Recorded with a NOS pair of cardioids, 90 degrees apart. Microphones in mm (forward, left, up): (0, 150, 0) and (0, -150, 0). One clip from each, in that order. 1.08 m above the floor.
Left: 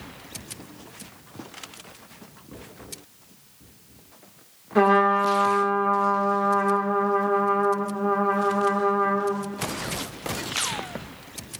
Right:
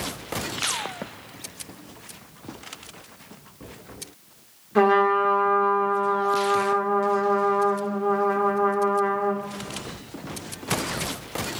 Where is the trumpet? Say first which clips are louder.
Even; 5° left, 1.5 m.